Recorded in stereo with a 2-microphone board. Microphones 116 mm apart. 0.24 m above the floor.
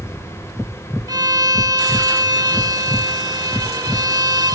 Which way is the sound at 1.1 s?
35° right (ahead or behind).